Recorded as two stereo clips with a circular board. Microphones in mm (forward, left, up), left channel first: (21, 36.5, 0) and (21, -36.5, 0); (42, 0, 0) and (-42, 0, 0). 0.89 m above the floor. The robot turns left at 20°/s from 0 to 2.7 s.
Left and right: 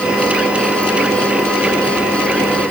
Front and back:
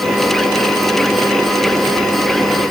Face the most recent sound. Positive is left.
No sound to turn to.